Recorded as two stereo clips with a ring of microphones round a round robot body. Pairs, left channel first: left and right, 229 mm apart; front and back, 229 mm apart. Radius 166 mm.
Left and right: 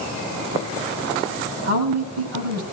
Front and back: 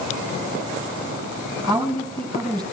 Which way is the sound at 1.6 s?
85° right.